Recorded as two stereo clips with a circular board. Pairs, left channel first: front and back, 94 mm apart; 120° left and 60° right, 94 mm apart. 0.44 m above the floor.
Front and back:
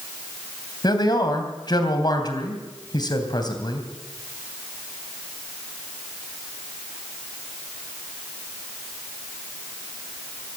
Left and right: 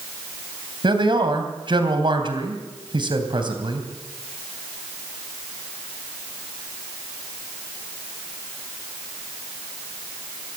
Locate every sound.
0.8 s a man speaking: 35° right, 3 m